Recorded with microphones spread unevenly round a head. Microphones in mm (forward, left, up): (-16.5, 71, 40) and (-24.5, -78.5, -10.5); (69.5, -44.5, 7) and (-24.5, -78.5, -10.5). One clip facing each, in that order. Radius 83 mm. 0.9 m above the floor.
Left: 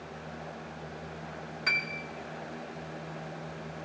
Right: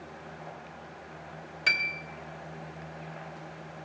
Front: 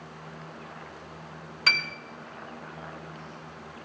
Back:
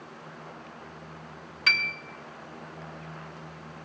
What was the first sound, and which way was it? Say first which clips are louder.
A piano: right 2 dB, even; 30° right.